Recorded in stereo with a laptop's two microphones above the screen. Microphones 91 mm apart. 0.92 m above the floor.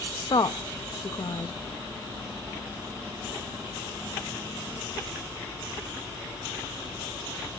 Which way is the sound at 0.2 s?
55° left (ahead or behind).